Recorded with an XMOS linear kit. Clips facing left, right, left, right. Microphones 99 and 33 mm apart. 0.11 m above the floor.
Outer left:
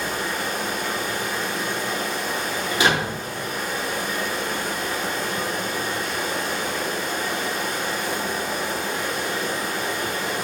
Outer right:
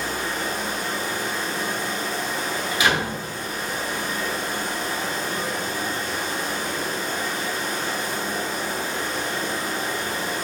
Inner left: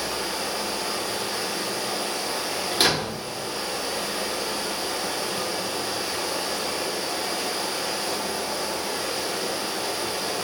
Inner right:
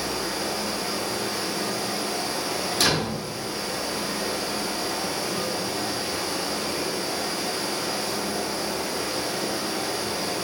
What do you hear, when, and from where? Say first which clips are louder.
0.0 s running water: outer left 1 dB, even; 65° left (ahead or behind), 0.7 m
2.7 s a door slam: outer left 2 dB, inner left 1 dB; 35° left (ahead or behind), 1.0 m